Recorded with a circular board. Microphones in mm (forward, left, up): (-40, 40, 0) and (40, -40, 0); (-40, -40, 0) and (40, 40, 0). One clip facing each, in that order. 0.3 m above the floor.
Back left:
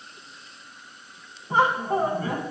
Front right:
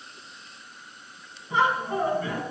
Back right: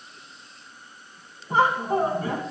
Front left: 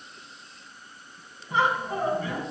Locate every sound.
1.5 s laughter: straight behind, 2.5 m